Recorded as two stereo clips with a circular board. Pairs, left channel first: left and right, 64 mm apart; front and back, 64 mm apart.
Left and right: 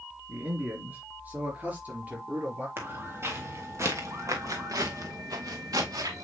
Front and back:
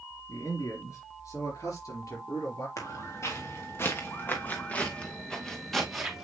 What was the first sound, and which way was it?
A man speaking, 30° right.